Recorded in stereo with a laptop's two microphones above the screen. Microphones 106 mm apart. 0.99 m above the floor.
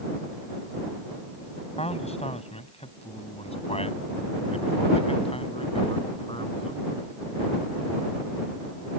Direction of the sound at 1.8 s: 80° left.